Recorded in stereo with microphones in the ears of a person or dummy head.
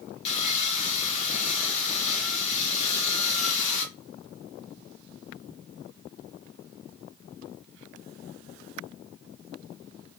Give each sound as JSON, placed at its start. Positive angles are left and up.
{"t": 0.2, "sound": "sawing", "side_deg": 35, "distance_m": 1.0}